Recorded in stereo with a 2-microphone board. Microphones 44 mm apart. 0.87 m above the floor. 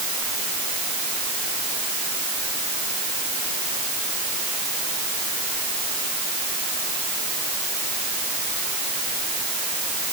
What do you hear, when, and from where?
Only background noise.